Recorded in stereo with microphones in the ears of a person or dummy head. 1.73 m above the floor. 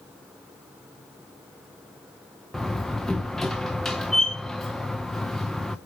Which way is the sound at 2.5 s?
Centre (ahead or behind).